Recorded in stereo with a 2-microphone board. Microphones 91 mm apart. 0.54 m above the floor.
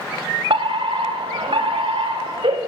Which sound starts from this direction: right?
A fire alarm, at 0.5 s.